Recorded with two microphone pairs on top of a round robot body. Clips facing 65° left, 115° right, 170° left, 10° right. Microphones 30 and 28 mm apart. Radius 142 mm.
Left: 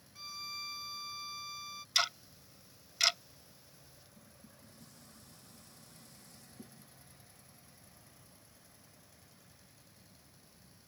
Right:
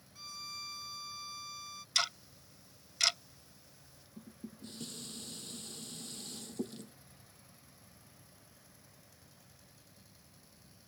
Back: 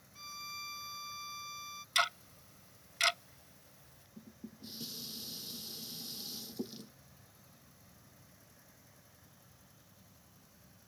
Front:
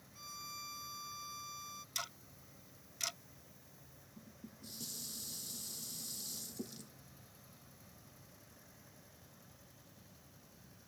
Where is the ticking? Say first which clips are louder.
Left 1 dB, back 14 dB; 140° left.